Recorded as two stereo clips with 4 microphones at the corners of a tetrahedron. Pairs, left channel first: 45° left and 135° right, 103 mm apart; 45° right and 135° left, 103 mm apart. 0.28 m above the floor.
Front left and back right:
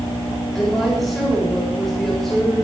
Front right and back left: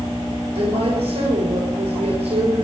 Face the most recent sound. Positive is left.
turn(degrees=135)